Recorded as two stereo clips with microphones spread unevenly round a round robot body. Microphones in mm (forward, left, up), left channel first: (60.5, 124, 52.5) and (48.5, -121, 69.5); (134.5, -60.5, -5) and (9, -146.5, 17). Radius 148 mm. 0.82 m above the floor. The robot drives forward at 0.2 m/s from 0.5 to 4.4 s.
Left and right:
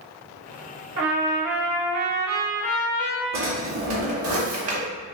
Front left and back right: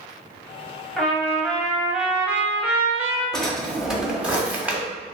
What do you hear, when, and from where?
1.0 s a trumpet: 55° right, 1.2 m; by 3.2 s 80° right, 1.0 m
3.3 s a drawer: 55° right, 1.0 m; by 4.8 s 65° right, 0.9 m